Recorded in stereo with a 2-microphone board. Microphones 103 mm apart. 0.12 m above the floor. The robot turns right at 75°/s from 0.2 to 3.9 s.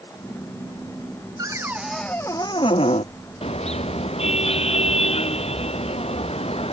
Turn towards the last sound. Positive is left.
turn(degrees=105)